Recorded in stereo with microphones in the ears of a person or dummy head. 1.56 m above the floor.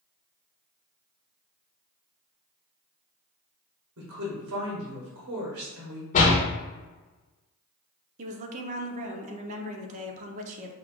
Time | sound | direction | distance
4.0 | a woman speaking | 70° right (ahead or behind) | 1.2 m
6.1 | a door slam | 40° left (ahead or behind) | 1.0 m
8.2 | a woman speaking | 40° right (ahead or behind) | 0.7 m